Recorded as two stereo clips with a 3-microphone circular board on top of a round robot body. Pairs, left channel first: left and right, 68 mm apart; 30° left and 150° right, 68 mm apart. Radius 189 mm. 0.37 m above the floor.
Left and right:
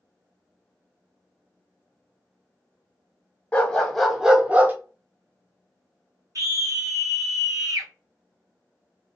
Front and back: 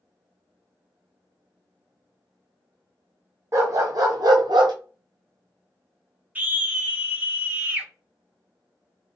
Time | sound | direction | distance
3.5 | a dog barking | 165° left | 1.3 m
6.3 | a scream | 90° right | 2.0 m